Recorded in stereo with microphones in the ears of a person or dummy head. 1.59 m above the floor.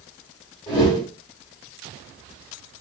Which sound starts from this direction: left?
A whoosh, at 0.7 s.